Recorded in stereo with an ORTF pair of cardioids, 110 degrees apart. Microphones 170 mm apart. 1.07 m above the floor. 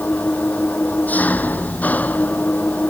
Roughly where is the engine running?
Ahead.